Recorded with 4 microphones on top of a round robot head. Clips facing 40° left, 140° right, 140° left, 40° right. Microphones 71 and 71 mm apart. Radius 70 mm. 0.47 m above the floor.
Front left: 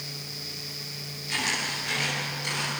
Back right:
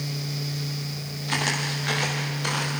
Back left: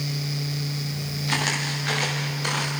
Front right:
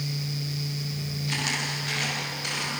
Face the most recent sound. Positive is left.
turn(degrees=-175)